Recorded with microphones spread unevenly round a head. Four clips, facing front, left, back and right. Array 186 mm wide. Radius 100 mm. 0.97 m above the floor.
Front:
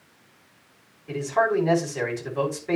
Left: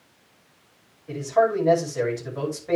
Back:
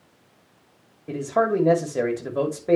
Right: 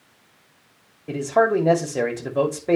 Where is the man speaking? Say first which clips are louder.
Right 2 dB, back 1 dB; 120° right, 3 m.